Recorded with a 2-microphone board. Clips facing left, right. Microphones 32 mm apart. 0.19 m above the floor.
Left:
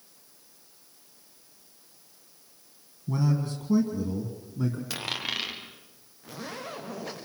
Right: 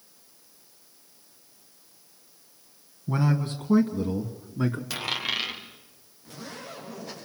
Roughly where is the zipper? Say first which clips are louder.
Left 2 dB; left.